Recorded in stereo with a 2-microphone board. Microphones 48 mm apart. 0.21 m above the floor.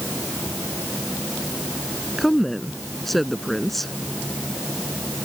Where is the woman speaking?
5° left (ahead or behind).